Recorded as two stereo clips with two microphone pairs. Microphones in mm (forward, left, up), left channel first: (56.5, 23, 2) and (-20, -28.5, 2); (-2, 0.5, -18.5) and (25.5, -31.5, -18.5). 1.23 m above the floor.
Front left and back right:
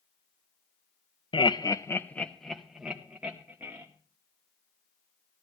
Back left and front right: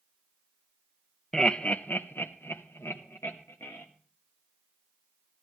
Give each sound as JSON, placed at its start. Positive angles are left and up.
{"t": 1.3, "sound": "laughter", "azimuth_deg": 55, "distance_m": 0.7}